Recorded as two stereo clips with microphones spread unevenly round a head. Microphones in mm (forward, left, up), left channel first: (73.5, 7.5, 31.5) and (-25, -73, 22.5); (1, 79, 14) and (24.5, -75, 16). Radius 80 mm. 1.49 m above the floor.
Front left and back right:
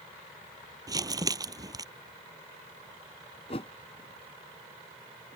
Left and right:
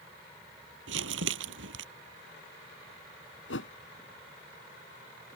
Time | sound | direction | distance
0.9 | crumpling | 80° right | ?
3.5 | a whoosh | 95° left | ?